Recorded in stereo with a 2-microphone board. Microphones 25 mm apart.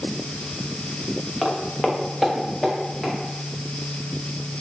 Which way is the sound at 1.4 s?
Centre (ahead or behind).